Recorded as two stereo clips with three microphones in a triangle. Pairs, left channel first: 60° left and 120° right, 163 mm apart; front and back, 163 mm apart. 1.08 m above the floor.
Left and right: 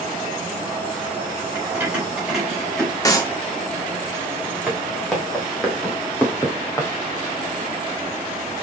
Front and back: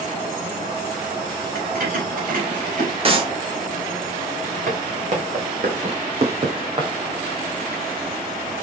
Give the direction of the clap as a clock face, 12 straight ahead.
8 o'clock.